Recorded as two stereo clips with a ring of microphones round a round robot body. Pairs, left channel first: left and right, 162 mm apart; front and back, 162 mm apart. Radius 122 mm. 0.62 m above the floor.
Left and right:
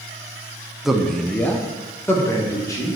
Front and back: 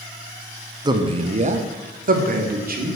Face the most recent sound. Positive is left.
turn(degrees=160)